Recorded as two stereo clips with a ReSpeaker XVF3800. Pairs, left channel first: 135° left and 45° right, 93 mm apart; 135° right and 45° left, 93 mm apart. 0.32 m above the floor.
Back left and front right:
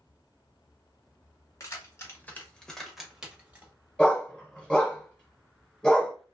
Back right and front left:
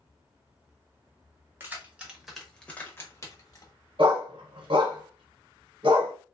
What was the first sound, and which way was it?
Keys jangling, 100° left.